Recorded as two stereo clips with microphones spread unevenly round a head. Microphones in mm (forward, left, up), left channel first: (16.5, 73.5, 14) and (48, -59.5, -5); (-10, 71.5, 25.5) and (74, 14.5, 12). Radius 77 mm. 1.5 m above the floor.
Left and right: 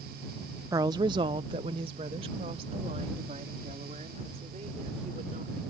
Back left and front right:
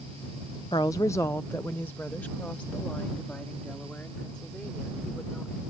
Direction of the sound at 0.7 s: 150° right.